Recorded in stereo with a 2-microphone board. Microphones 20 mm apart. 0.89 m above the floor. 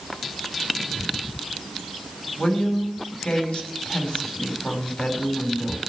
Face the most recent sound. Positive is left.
turn(degrees=75)  # may be behind; listen again after turning